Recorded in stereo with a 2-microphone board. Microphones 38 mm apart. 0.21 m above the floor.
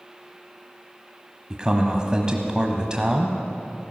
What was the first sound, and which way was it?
A man speaking, 20° right (ahead or behind).